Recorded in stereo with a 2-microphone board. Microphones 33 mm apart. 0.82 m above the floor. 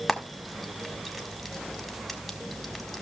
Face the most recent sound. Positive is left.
turn(degrees=5)  # may be behind; listen again after turning